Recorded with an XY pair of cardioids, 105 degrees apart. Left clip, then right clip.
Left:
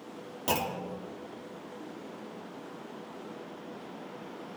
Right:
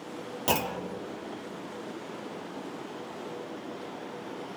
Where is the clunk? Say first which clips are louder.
Right 2 dB; 30° right, 1.0 m.